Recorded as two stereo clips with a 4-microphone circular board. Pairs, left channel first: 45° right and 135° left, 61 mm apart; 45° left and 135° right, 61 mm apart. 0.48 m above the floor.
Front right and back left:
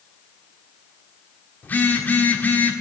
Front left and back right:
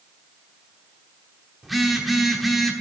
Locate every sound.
1.6 s a phone buzzing: 50° right, 1.2 m